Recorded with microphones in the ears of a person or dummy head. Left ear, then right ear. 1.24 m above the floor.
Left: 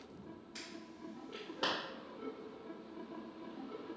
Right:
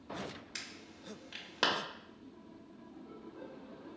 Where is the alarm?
40° right (ahead or behind), 0.9 m.